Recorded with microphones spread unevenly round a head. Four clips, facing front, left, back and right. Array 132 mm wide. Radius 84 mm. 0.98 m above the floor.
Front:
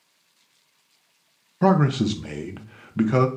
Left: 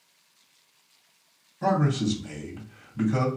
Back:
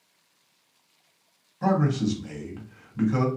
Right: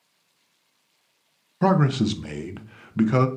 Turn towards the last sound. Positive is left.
turn(degrees=-25)